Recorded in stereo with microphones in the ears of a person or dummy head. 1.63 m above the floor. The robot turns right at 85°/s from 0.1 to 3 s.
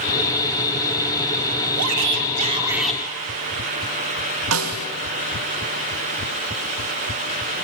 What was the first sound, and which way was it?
A shout, 95° right.